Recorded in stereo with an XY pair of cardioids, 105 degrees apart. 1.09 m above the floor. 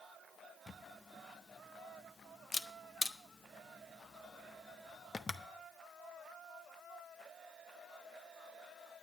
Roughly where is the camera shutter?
Ahead left.